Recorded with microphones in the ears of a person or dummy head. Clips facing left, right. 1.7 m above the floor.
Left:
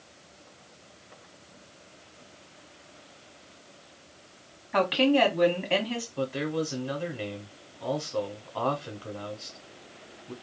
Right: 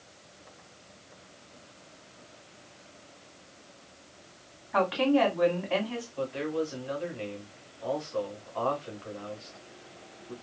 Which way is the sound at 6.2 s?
35° left (ahead or behind).